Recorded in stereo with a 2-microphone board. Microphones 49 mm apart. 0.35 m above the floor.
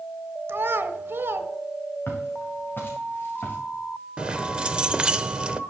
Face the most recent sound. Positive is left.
turn(degrees=-20)  # may be behind; listen again after turning